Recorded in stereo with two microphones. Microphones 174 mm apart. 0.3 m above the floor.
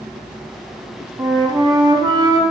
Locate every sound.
1.2 s a flute: 25° right (ahead or behind), 0.5 m